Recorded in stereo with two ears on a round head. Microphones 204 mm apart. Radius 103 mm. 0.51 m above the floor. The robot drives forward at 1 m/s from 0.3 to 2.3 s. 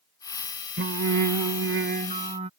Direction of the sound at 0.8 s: 45° right (ahead or behind).